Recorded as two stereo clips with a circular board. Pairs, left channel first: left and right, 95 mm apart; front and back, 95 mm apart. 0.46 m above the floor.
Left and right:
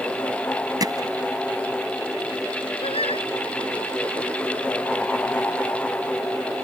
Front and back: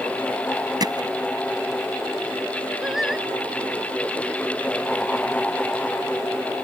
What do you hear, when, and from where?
0.8 s hammering: 135° right
2.8 s singing: 95° left